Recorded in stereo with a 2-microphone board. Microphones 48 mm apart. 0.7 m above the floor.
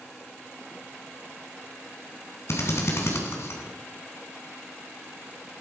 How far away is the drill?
About 3 m.